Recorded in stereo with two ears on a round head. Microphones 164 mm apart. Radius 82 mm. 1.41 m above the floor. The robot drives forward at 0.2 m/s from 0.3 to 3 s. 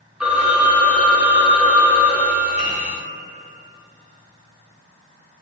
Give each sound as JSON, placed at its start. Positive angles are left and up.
{"t": 0.2, "sound": "a phone ringing", "side_deg": -5, "distance_m": 1.2}
{"t": 2.6, "sound": "a piano", "side_deg": 40, "distance_m": 1.5}